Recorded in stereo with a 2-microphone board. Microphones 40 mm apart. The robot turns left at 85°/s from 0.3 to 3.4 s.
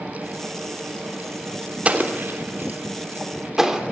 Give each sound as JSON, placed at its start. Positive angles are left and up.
{"t": 1.9, "sound": "an explosion", "side_deg": -35, "distance_m": 3.0}